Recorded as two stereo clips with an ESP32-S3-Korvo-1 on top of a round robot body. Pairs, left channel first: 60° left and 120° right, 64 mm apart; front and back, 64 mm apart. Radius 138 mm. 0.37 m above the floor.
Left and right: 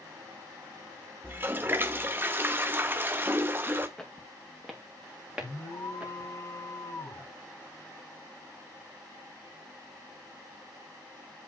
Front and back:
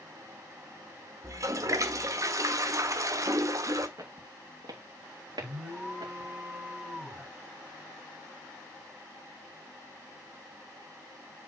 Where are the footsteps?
145° left, 3 m; by 6.3 s 175° left, 3.5 m.